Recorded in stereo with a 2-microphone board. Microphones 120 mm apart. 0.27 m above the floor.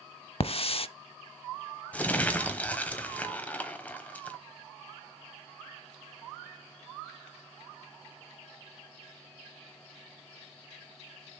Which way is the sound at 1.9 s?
10° left (ahead or behind).